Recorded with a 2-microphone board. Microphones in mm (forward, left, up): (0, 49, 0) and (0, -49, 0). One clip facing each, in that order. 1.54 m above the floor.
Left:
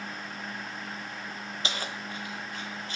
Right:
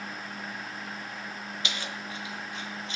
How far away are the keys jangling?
About 0.7 m.